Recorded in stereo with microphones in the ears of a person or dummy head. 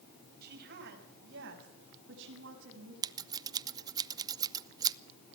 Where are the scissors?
20° right (ahead or behind), 0.6 m.